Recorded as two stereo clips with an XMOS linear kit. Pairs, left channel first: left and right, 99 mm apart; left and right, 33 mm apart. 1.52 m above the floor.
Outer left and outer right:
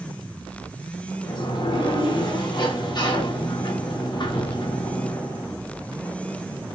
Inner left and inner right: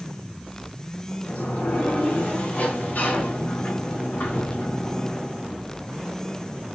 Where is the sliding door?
50° left (ahead or behind), 1.0 m.